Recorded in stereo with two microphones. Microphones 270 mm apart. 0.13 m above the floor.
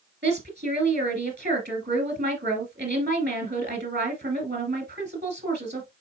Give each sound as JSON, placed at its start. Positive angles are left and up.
{"t": 0.2, "sound": "a woman speaking", "side_deg": -40, "distance_m": 2.0}